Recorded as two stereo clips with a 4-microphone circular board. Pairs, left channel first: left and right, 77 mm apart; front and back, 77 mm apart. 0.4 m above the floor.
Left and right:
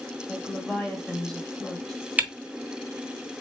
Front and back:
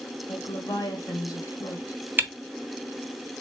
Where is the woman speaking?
5° left, 1.8 m.